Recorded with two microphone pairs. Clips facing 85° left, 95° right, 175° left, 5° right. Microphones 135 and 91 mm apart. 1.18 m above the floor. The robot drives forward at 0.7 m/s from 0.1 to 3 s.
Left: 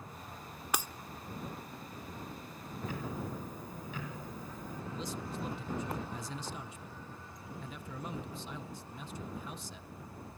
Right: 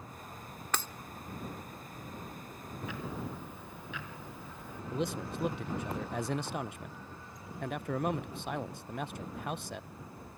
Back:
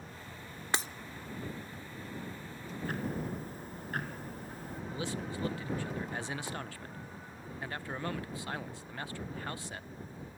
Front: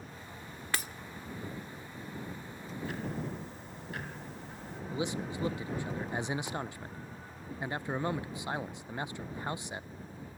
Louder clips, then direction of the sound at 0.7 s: Left 1 dB, back 2 dB; 140° left.